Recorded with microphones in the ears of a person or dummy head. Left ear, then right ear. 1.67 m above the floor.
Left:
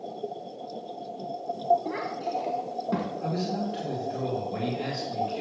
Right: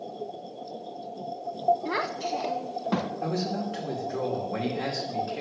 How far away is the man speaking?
About 2.5 m.